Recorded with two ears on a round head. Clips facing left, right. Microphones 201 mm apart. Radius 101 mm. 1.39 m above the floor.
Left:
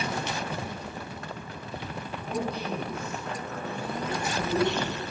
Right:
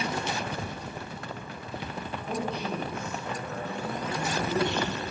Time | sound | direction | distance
2.3 | a man speaking | 20° right (ahead or behind) | 8 m